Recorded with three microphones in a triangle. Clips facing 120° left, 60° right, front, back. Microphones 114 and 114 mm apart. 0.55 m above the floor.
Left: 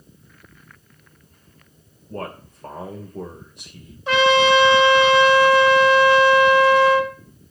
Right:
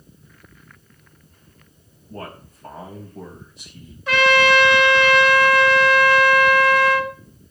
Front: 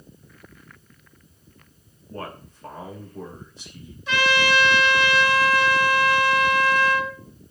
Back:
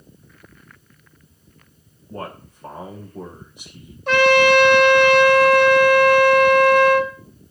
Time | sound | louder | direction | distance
2.1 | a man speaking | left 4 dB, back 2 dB | 105° left | 2.5 m
4.1 | a trumpet | left 1 dB, back 8 dB | straight behind | 1.7 m